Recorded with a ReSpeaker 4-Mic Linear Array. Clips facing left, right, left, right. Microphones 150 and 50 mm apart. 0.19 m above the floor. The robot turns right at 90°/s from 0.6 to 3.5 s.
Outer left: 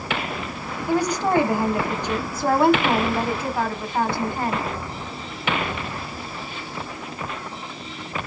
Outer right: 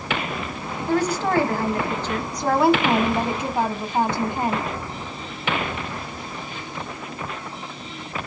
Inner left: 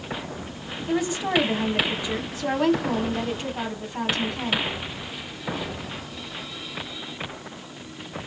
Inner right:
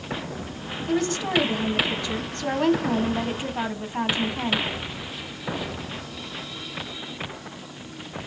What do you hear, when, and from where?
0.9 s a woman speaking: 10° left (ahead or behind), 1.1 m; by 4.7 s 20° right (ahead or behind), 1.1 m